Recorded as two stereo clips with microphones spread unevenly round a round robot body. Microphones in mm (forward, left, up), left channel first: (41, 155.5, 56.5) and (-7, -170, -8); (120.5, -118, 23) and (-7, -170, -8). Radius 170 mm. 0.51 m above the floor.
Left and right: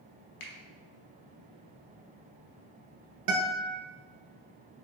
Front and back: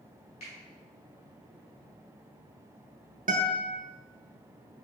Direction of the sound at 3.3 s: 130° right.